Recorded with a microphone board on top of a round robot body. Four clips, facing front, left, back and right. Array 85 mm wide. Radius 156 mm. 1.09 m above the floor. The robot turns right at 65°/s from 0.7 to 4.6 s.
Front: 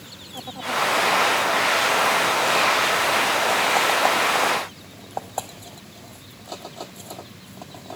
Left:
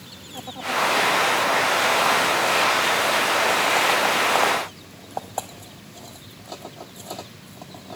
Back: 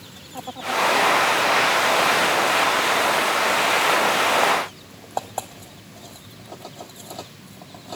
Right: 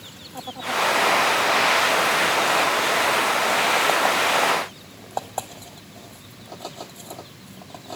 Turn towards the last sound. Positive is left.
No sound to turn to.